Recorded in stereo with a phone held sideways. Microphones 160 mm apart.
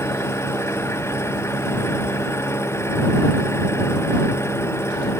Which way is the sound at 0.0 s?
15° left (ahead or behind).